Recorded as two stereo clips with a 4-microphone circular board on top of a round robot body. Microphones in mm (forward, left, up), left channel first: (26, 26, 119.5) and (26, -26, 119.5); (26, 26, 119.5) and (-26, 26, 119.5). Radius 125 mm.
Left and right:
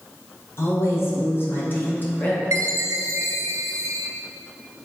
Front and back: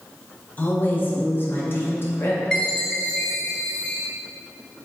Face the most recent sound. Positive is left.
turn(degrees=-70)